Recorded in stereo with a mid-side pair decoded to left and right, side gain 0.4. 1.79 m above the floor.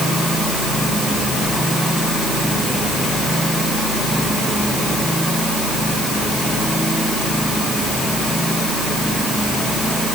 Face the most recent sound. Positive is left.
No sound to turn to.